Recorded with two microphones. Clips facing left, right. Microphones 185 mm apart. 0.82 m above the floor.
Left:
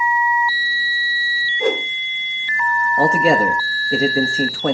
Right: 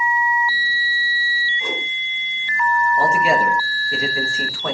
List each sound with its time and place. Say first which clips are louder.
1.6 s a whoosh: left 11 dB; 65° left (ahead or behind), 1.4 m
3.0 s a man speaking: left 5 dB; 35° left (ahead or behind), 1.1 m